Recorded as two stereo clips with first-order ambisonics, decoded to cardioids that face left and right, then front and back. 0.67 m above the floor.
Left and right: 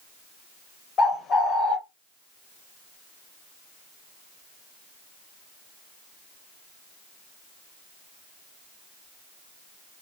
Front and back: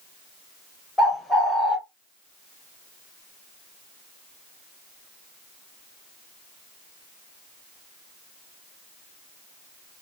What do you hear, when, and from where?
1.0 s a bird: 90° left, 1.0 m